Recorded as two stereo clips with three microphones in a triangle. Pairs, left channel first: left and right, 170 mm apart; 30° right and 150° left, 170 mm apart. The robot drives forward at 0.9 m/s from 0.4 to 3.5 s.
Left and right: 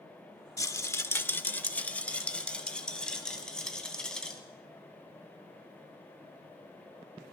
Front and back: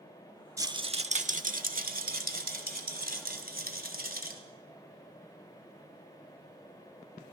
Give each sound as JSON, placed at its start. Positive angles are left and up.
{"t": 0.6, "sound": "a rattle", "azimuth_deg": 115, "distance_m": 0.7}